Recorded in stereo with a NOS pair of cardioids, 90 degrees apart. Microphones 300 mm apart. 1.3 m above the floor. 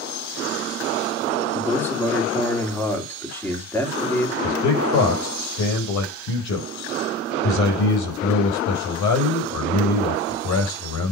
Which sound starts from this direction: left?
A man speaking, at 4.4 s.